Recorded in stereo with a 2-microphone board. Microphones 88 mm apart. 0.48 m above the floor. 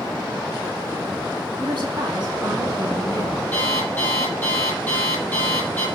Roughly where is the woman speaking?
Right.